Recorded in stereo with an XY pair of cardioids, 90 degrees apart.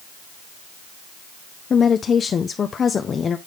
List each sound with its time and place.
1.7 s a woman speaking: 50° left, 0.8 m